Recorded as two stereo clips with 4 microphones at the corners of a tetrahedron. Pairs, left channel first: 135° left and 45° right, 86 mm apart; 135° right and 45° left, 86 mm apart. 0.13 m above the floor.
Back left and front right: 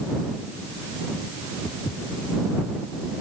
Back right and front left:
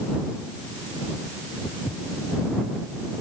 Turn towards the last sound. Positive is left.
turn(degrees=170)